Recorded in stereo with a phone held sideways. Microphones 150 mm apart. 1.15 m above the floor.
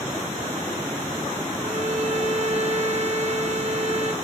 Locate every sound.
1.6 s a violin: 50° right (ahead or behind), 0.9 m